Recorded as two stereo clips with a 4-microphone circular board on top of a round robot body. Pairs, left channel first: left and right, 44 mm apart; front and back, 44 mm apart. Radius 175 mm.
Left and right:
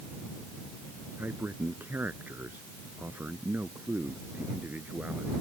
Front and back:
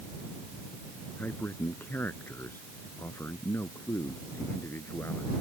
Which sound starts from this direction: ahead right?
A man speaking, at 1.2 s.